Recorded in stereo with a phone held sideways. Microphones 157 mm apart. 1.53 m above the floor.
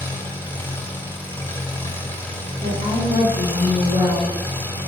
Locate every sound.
0.0 s an engine running: 15° left (ahead or behind), 1.6 m
2.6 s a woman speaking: 85° left, 3.5 m